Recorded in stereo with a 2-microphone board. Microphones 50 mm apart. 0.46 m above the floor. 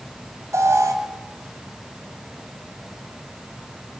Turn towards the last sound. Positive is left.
turn(degrees=-70)  # may be behind; listen again after turning